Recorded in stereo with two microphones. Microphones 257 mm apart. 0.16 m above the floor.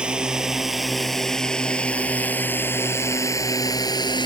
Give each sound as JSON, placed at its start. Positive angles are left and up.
{"t": 0.0, "sound": "a drone", "side_deg": -5}